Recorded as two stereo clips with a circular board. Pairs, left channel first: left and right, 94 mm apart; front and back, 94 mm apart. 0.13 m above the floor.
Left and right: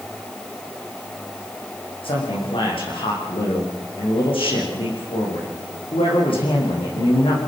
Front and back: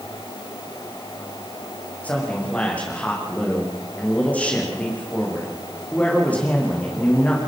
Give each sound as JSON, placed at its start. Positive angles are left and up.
{"t": 2.0, "sound": "a man speaking", "azimuth_deg": 75, "distance_m": 8.0}